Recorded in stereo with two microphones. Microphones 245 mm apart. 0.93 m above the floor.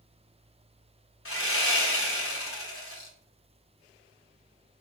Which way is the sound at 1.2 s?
65° left (ahead or behind).